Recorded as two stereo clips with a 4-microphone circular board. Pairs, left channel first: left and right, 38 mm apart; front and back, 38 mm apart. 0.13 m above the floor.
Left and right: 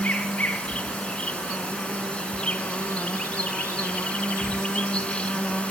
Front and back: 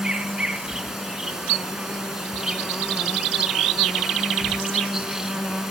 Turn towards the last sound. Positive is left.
turn(degrees=110)